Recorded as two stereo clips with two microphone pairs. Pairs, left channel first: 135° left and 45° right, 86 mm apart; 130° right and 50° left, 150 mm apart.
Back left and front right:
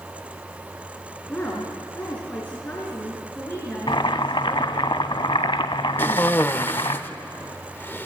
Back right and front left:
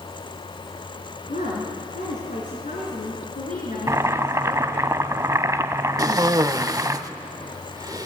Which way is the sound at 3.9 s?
120° left.